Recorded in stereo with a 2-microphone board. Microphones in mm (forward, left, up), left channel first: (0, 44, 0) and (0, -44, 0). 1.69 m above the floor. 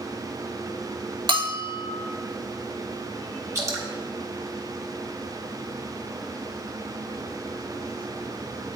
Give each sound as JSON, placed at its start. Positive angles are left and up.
{"t": 1.3, "sound": "a bell", "side_deg": -65, "distance_m": 0.9}
{"t": 3.5, "sound": "dripping", "side_deg": -35, "distance_m": 1.2}